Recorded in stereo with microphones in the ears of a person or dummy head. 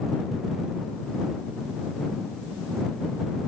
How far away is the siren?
I don't hear a siren.